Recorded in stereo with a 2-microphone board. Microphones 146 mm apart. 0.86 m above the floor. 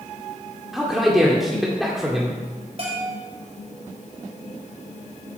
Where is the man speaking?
Centre (ahead or behind), 2 m.